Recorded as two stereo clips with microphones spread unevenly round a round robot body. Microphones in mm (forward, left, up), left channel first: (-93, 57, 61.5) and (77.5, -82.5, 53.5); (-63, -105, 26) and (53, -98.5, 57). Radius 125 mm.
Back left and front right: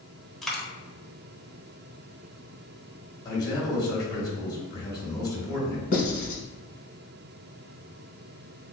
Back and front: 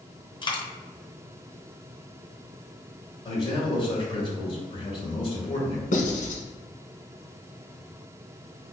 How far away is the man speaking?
About 1.8 m.